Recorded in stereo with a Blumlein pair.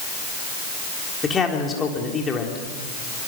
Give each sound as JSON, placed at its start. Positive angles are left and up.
{"t": 1.2, "sound": "a man speaking", "azimuth_deg": 15, "distance_m": 3.5}